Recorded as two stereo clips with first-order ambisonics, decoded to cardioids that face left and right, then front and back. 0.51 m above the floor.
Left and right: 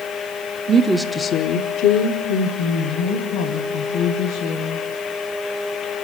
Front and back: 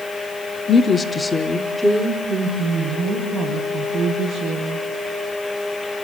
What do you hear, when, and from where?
0.7 s a woman speaking: 60° right, 0.9 m; by 4.8 s 100° left, 5 m